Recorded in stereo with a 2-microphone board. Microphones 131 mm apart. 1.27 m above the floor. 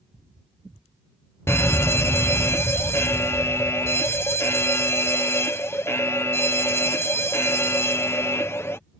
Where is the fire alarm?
20° left (ahead or behind).